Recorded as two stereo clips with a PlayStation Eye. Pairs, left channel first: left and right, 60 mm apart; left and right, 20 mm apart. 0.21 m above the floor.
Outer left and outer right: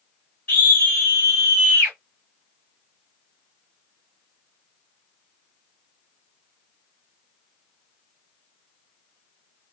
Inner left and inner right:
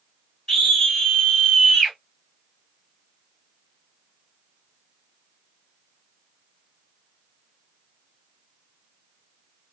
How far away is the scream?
About 1.6 m.